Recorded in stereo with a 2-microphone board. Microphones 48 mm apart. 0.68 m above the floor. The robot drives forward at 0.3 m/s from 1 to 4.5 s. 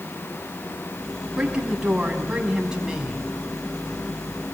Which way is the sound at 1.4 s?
15° right (ahead or behind).